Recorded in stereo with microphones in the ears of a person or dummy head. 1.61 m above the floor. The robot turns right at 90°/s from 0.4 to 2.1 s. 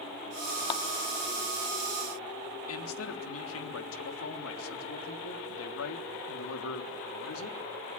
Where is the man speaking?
85° left, 3 m.